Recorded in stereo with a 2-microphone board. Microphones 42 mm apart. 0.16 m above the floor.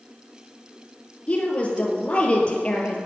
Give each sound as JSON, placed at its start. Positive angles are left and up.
{"t": 1.3, "sound": "a woman speaking", "side_deg": 30, "distance_m": 3.0}